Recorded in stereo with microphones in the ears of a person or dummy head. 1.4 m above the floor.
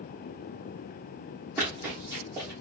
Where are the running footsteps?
15° right (ahead or behind), 2.5 m.